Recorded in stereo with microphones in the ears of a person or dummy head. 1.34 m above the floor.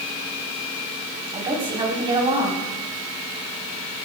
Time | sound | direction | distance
1.3 | a woman speaking | 20° right (ahead or behind) | 3.5 m